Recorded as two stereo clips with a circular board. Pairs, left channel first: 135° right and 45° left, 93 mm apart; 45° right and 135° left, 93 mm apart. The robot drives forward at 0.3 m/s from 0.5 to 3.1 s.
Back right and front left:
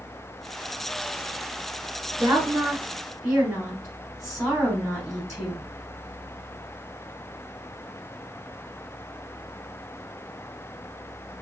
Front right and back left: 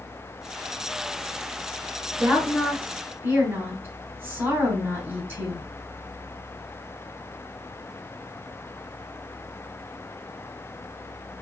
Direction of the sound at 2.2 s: 80° left.